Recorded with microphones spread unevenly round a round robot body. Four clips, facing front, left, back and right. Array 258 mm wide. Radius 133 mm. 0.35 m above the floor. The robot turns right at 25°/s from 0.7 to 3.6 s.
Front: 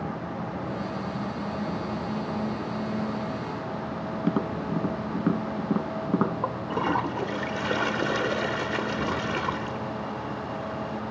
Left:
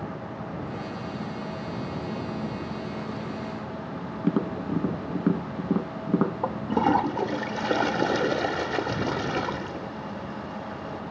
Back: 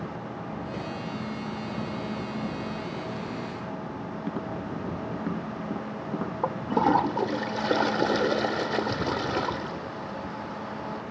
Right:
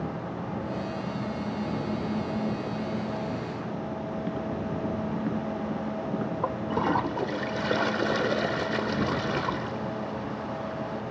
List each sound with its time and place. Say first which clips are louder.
4.2 s tapping: left 9 dB, front 7 dB; 75° left
6.4 s a toilet flushing: left 3 dB, back 3 dB; 140° left